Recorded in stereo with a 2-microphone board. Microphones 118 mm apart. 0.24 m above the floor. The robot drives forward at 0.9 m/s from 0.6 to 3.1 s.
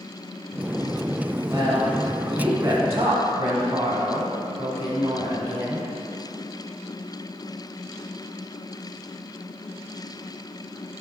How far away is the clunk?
I don't hear a clunk.